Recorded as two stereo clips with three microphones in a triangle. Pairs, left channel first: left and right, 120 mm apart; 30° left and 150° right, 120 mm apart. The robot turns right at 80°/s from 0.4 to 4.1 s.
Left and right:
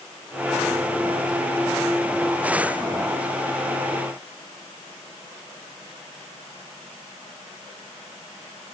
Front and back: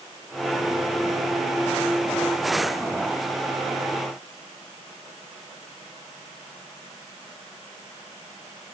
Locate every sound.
Only background noise.